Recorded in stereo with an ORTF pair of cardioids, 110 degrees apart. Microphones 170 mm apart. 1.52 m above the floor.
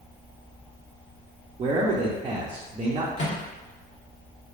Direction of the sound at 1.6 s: 30° right.